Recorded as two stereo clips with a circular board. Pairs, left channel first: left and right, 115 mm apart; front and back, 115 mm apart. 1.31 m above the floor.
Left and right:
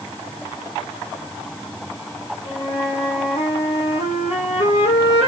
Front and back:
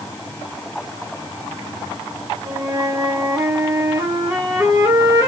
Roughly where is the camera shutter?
I don't hear a camera shutter.